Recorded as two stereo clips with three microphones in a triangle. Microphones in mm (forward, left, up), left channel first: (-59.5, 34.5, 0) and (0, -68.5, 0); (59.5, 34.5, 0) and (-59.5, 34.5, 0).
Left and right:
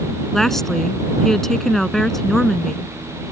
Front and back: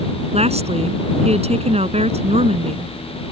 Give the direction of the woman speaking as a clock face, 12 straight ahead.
5 o'clock.